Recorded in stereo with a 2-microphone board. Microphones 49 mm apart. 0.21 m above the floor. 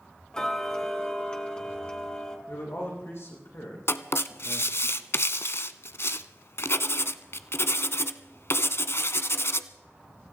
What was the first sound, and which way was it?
Ticking, 15° left (ahead or behind).